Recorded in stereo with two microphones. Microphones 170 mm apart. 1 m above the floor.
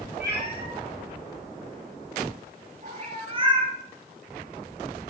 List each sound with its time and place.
0.2 s a cat meowing: 65° right (ahead or behind), 6.5 m; by 3.7 s 25° right (ahead or behind), 3.5 m